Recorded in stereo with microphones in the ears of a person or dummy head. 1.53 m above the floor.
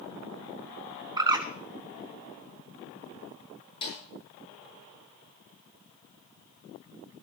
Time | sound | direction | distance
1.2 | a bird | 20° right (ahead or behind) | 1.4 m
3.8 | a snare drum | 30° left (ahead or behind) | 8.5 m